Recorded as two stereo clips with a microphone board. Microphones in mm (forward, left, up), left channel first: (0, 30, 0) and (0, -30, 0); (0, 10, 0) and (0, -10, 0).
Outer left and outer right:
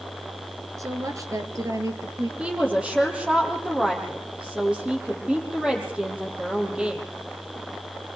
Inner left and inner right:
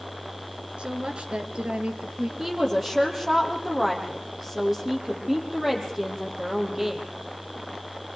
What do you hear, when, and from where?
0.8 s a woman speaking: 70° right (ahead or behind), 3.5 m; by 2.3 s 75° right (ahead or behind), 4 m
2.4 s a woman speaking: 20° right (ahead or behind), 7 m